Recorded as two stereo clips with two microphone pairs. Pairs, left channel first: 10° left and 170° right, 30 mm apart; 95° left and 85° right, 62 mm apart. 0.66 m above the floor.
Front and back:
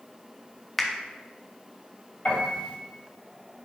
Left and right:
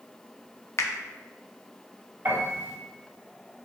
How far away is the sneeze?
No sneeze in this recording.